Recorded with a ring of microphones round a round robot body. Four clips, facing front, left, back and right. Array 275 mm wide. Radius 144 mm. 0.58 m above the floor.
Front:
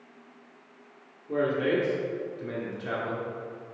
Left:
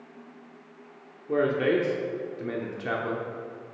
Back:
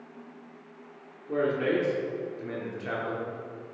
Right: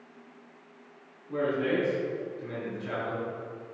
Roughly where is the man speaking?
Left.